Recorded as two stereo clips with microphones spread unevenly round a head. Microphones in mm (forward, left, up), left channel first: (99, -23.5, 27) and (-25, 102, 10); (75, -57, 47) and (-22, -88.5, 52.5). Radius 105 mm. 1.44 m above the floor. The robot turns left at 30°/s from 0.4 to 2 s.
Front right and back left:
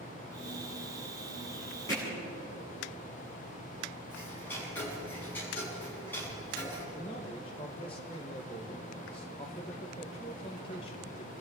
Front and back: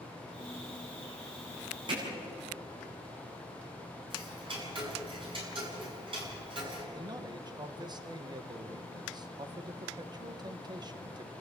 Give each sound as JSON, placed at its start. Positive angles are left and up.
{"t": 1.9, "sound": "hammering", "azimuth_deg": -120, "distance_m": 9.5}
{"t": 4.1, "sound": "ticking", "azimuth_deg": -125, "distance_m": 7.0}
{"t": 6.9, "sound": "a man speaking", "azimuth_deg": -115, "distance_m": 1.8}